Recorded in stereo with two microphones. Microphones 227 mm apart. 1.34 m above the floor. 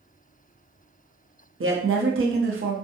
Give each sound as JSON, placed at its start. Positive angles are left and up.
{"t": 1.6, "sound": "a woman speaking", "side_deg": -65, "distance_m": 0.8}